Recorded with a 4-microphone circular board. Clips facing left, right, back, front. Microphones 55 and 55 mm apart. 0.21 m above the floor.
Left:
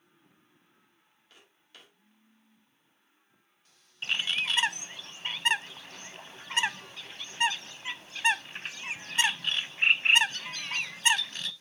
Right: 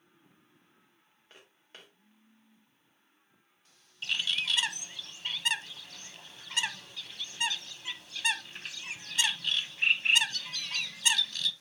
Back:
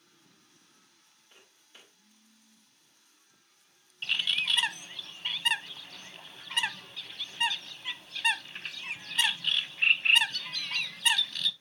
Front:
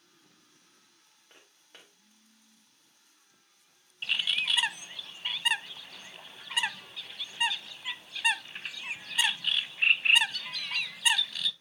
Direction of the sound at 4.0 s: 85° left.